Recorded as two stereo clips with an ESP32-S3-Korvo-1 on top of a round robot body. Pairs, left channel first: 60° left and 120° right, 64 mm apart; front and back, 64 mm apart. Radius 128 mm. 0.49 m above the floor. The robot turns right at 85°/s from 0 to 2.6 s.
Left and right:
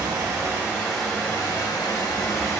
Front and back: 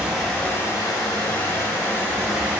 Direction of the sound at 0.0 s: 105° right.